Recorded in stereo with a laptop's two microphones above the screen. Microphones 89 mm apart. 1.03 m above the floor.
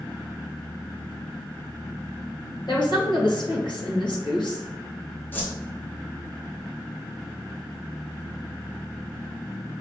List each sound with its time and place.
2.7 s a woman speaking: 65° left (ahead or behind), 1.3 m
5.3 s a whoosh: 25° left (ahead or behind), 0.7 m